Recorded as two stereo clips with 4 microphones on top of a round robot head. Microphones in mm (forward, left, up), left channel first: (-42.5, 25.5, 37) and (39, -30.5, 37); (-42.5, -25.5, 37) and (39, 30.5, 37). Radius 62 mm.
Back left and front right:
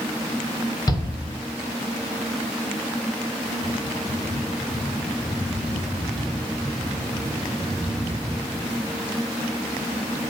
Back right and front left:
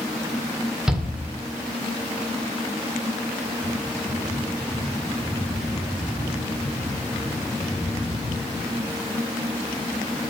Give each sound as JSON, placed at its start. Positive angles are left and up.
{"t": 0.9, "sound": "a shout", "azimuth_deg": 115, "distance_m": 1.9}